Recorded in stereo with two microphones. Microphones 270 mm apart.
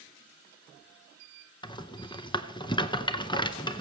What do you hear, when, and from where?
1.6 s a rattle: 15° left (ahead or behind), 0.7 m